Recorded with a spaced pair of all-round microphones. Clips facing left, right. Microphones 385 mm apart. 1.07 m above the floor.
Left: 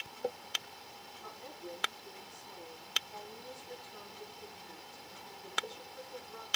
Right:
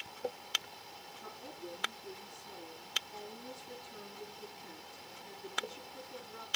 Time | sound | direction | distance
1.2 | a woman speaking | 45° right (ahead or behind) | 9.5 m